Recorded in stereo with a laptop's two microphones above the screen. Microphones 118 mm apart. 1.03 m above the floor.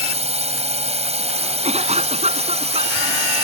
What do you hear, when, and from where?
0.0 s a drone: 65° right (ahead or behind)
1.6 s a cough: 65° right (ahead or behind)